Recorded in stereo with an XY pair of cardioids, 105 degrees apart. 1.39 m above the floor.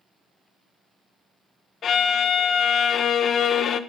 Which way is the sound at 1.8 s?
55° left.